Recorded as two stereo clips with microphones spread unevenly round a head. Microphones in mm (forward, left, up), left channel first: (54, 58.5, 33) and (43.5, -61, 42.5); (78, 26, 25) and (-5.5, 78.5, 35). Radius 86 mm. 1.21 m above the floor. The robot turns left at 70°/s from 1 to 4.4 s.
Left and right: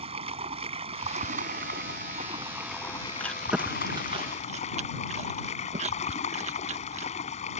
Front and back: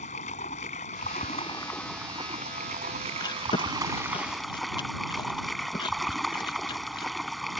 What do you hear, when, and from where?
0.0 s running water: 60° right; by 7.6 s 60° left
3.2 s chewing: 10° left; by 7.1 s 75° right